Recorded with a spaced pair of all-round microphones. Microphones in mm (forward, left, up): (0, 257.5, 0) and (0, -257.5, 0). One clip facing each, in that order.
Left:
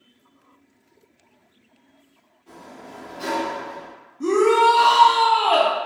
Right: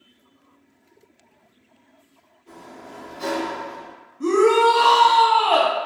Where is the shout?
10° left (ahead or behind), 0.5 m.